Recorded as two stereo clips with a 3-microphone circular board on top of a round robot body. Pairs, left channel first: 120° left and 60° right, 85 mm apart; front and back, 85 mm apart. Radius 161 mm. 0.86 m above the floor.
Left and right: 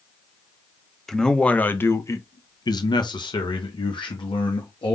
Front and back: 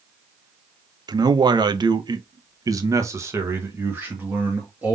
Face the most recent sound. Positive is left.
turn(degrees=110)